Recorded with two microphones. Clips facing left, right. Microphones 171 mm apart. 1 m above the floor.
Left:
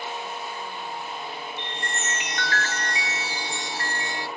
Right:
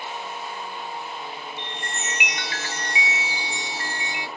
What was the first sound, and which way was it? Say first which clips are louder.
A chime: left 1 dB; 15° right (ahead or behind).